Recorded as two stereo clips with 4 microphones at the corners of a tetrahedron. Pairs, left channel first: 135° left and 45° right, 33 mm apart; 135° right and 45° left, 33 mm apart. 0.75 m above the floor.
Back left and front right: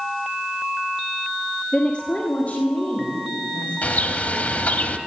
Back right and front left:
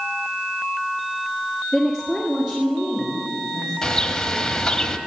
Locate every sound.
1.7 s a woman speaking: 135° left, 1.1 m; by 3.7 s 115° left, 3.5 m
3.8 s a bird: 150° left, 0.9 m